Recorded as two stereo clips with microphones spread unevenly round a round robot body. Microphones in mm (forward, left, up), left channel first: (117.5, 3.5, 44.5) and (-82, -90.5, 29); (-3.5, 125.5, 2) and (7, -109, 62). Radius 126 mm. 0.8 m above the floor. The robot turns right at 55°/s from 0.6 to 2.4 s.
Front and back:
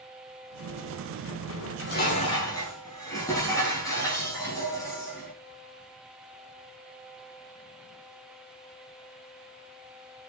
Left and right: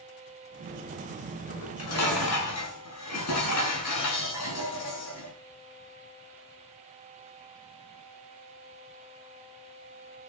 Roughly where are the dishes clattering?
Ahead left.